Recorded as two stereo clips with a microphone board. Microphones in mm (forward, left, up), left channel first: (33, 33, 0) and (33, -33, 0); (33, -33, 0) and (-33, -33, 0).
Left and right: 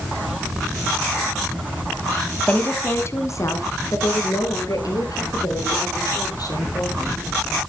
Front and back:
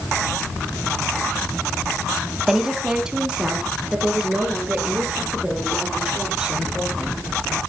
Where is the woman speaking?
110° left, 1.0 m; by 7.2 s 105° left, 5 m.